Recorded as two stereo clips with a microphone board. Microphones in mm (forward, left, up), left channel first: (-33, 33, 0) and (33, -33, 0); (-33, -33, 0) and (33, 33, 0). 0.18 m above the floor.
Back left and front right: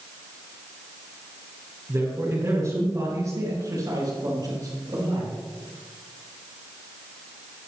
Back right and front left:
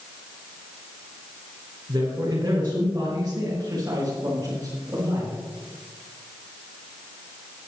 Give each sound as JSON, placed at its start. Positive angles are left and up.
{"t": 1.9, "sound": "a man speaking", "azimuth_deg": 0, "distance_m": 3.0}